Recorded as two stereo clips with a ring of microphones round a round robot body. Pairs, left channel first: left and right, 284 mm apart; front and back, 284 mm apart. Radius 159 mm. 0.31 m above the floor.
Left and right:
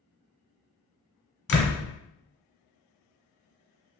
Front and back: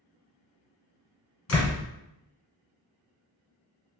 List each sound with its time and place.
1.5 s a door slam: 50° left, 1.9 m